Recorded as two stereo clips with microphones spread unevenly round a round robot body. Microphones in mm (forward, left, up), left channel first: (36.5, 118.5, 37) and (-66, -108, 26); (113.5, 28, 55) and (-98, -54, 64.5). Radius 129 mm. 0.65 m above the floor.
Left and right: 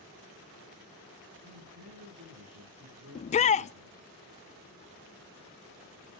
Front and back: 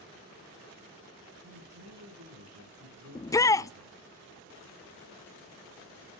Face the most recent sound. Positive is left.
turn(degrees=70)